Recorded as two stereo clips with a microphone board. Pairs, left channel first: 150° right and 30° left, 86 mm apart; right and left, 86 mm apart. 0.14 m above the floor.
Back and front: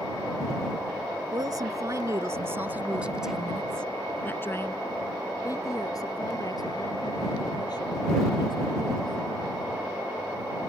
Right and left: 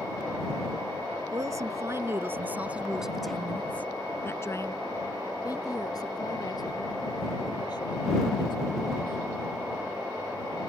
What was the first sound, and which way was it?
A woman speaking, 55° left.